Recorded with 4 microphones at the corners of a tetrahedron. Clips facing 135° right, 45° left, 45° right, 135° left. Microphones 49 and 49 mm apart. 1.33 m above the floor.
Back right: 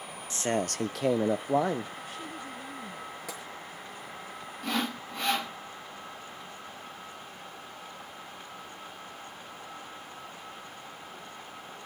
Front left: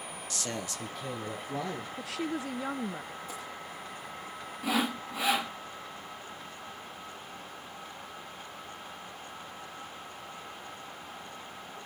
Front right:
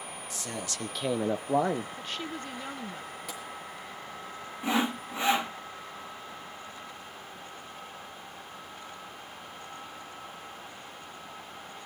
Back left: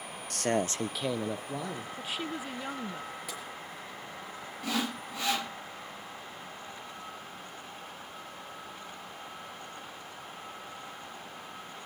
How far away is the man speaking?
About 0.9 m.